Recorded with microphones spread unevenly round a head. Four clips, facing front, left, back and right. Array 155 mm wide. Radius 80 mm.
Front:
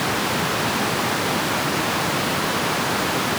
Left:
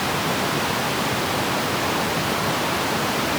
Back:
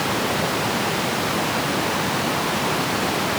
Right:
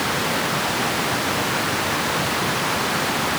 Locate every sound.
Only background noise.